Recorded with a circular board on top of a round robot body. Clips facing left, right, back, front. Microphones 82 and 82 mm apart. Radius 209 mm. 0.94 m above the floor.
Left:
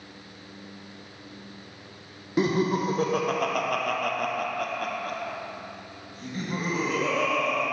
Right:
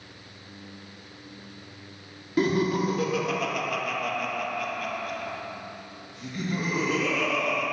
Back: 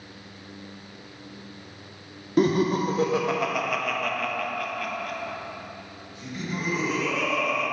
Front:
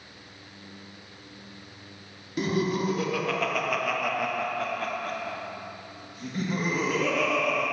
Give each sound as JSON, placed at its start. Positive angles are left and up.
{"t": 2.4, "sound": "laughter", "azimuth_deg": 155, "distance_m": 1.1}